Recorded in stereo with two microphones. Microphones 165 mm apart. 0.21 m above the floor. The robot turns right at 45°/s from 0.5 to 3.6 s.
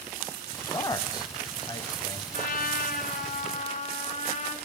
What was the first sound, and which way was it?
A man speaking, 20° left (ahead or behind).